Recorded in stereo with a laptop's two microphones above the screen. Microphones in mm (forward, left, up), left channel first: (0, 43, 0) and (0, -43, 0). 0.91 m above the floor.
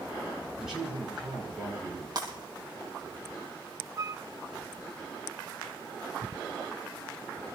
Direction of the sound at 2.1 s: 45° right (ahead or behind).